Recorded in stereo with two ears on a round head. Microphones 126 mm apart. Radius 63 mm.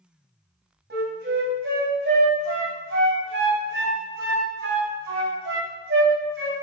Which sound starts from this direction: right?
A flute, at 0.9 s.